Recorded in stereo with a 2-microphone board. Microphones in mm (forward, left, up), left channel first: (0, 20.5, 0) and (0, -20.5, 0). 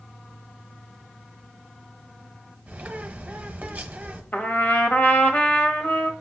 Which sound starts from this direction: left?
A trumpet, at 4.3 s.